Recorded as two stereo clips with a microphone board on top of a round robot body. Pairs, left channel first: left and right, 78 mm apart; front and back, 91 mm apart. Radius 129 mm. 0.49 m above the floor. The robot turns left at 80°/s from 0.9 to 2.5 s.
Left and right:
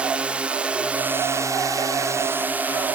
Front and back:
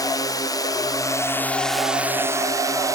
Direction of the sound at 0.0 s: 20° right.